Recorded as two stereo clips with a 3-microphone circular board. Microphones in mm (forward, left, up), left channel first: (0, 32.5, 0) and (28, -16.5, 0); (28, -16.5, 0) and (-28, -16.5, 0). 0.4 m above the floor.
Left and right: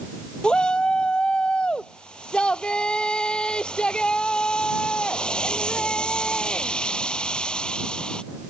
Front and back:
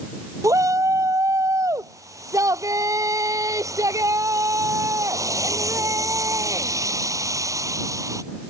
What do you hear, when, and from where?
0.4 s a shout: 165° right